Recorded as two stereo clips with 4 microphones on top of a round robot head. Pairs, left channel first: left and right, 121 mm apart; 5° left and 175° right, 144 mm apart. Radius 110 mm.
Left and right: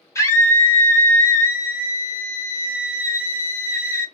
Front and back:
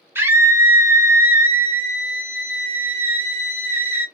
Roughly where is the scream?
Behind left.